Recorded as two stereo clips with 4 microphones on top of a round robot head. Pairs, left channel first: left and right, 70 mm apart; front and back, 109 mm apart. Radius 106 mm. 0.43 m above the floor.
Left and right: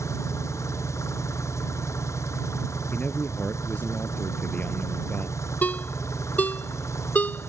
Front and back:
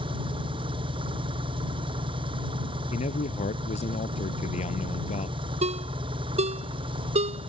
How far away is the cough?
I don't hear a cough.